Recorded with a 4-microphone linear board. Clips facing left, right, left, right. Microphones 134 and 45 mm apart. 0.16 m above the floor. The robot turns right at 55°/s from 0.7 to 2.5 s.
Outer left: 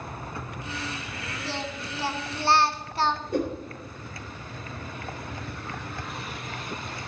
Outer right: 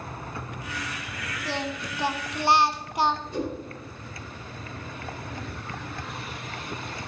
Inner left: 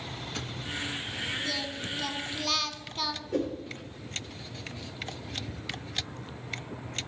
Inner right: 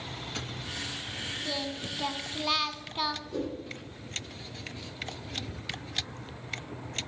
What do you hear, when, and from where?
1.4 s singing: 15° right (ahead or behind), 0.6 m
3.3 s a whoosh: 55° left (ahead or behind), 3.5 m